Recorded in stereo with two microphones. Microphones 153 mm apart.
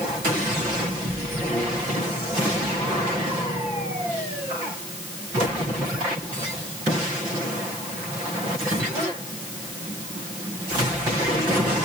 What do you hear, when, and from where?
Only background noise.